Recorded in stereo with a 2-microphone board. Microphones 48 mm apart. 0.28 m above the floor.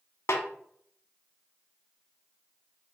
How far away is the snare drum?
About 0.7 m.